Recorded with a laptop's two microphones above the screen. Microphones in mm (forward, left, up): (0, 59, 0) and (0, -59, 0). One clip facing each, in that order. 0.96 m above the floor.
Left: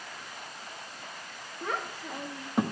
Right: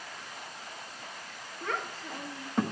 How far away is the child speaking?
About 1.2 m.